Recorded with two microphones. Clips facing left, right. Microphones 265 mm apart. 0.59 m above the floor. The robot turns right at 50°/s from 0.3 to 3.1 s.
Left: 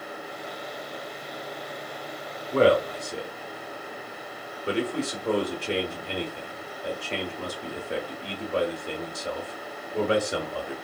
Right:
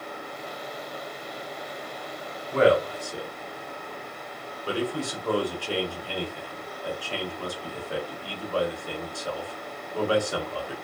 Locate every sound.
2.5 s a man speaking: 40° left (ahead or behind), 0.9 m; by 10.7 s 20° left (ahead or behind), 0.9 m